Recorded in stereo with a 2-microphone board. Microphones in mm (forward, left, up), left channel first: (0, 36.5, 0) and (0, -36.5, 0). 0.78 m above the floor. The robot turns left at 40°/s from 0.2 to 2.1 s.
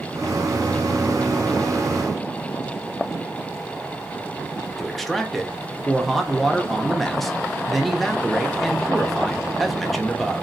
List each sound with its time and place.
4.8 s a man speaking: centre (ahead or behind), 0.5 m